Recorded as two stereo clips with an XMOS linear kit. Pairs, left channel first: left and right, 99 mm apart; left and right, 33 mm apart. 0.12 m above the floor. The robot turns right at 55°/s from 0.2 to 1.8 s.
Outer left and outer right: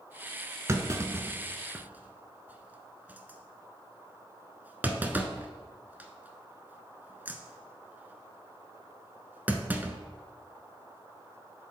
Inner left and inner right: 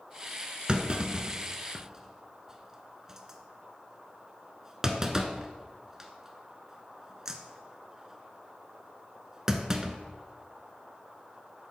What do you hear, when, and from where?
0.7 s a clunk: 30° right (ahead or behind), 0.7 m; by 9.9 s 20° right (ahead or behind), 0.7 m